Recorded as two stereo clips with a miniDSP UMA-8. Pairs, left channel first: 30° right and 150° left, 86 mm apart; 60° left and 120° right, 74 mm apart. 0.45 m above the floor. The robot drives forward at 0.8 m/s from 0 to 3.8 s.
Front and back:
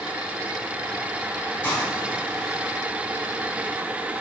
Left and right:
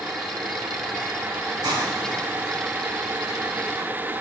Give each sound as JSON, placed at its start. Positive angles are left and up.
{"t": 1.6, "sound": "a hiss", "azimuth_deg": -100, "distance_m": 3.0}